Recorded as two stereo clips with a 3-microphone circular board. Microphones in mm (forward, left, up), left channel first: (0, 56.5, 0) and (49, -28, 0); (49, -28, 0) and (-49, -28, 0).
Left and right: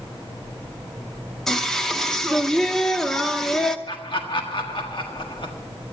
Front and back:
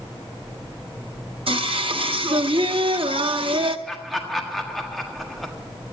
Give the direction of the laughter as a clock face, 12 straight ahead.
9 o'clock.